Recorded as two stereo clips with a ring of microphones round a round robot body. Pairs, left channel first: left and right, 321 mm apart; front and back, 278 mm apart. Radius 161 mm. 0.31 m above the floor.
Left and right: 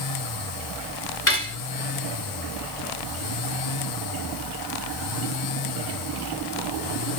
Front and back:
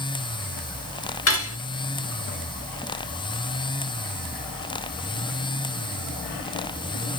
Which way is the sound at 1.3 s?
40° left.